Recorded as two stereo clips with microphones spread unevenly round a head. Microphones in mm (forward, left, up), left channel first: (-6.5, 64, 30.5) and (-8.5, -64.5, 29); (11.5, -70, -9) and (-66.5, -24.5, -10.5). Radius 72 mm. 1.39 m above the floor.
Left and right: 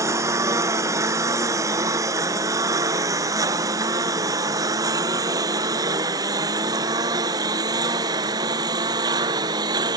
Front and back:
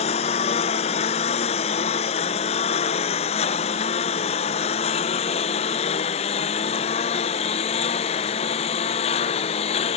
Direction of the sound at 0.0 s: 20° right.